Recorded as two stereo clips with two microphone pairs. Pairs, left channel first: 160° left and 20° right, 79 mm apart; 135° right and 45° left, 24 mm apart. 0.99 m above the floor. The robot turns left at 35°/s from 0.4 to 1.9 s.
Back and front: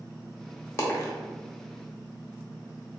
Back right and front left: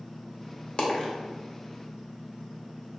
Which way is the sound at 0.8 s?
160° right.